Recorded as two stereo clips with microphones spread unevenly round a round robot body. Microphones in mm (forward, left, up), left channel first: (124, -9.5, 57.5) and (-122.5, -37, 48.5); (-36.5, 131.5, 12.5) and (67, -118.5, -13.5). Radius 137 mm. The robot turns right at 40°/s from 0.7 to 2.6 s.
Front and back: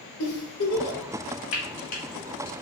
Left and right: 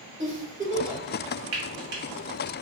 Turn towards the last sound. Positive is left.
turn(degrees=15)